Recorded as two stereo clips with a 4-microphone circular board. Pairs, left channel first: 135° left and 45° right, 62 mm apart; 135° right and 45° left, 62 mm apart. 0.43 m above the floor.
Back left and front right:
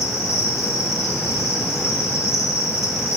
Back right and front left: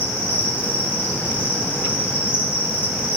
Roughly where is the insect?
Behind.